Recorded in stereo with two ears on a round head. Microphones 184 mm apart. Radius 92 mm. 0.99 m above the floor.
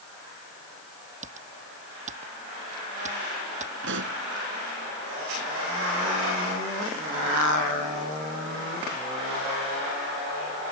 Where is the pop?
60° right (ahead or behind).